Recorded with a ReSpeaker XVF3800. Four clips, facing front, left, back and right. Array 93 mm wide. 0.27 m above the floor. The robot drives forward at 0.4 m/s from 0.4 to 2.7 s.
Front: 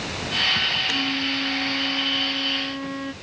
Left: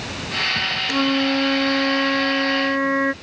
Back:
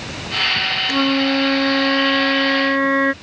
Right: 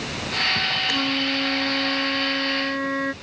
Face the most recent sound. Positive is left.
turn(degrees=160)